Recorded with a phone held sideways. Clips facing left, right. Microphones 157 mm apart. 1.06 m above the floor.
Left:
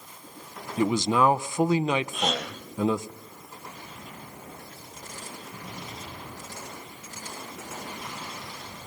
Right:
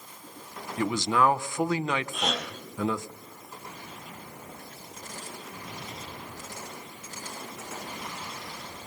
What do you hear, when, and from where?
0.8 s a man speaking: 20° left (ahead or behind), 0.6 m
2.1 s a gasp: centre (ahead or behind), 5 m